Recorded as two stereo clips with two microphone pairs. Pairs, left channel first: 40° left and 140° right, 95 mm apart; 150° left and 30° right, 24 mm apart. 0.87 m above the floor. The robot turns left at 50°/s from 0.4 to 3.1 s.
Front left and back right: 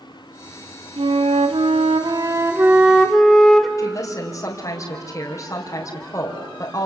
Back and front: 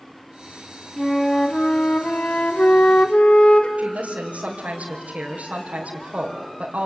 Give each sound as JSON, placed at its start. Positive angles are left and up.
{"t": 1.0, "sound": "a flute", "azimuth_deg": -120, "distance_m": 1.8}
{"t": 3.8, "sound": "a woman speaking", "azimuth_deg": -15, "distance_m": 3.5}